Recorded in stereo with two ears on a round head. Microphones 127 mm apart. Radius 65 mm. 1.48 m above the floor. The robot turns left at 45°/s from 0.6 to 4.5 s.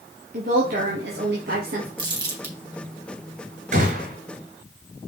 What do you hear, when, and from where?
0.3 s a woman speaking: 60° right, 2.0 m; by 1.9 s 115° right, 2.0 m
2.0 s crumpling: 40° right (ahead or behind), 3.5 m; by 2.5 s 15° right (ahead or behind), 3.5 m
3.7 s a gunshot: 55° right (ahead or behind), 3 m; by 4.2 s 65° right (ahead or behind), 3 m